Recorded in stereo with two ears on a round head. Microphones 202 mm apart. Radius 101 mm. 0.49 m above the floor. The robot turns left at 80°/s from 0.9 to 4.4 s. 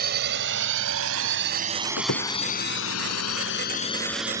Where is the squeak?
75° left (ahead or behind).